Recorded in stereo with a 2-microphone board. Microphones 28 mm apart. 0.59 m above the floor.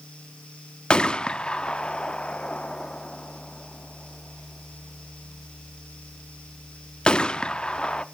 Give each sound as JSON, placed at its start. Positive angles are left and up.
{"t": 0.9, "sound": "a gunshot", "side_deg": 40, "distance_m": 0.6}